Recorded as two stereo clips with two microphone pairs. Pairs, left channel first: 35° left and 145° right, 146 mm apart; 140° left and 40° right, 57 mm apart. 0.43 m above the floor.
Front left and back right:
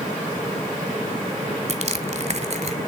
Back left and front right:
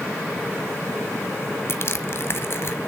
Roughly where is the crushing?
Behind.